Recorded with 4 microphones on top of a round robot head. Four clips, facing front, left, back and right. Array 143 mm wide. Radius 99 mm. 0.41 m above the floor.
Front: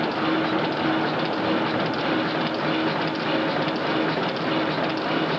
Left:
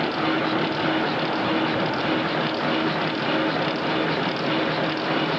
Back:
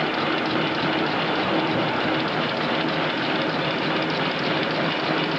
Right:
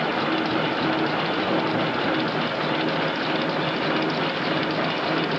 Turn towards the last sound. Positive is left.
No sound to turn to.